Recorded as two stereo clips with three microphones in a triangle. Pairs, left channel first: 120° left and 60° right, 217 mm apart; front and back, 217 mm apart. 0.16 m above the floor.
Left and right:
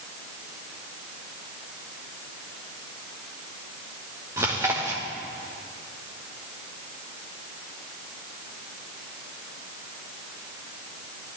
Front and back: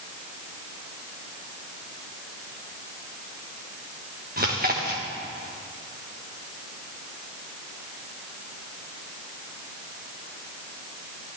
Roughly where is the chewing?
Behind right.